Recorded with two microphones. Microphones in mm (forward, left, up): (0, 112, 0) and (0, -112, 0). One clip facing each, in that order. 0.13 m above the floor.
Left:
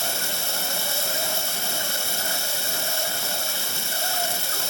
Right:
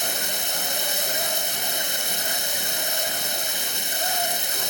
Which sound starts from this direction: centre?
Running water, at 0.0 s.